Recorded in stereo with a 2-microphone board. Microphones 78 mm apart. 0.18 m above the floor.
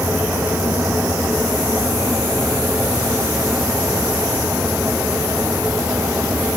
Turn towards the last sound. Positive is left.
No sound to turn to.